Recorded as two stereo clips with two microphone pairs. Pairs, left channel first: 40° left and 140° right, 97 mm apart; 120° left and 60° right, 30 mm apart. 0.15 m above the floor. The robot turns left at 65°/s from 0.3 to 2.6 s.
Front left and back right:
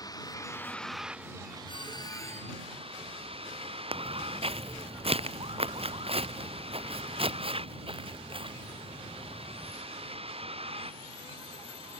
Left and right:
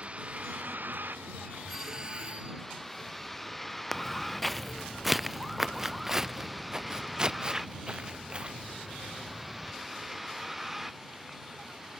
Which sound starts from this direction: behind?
Footsteps, at 3.9 s.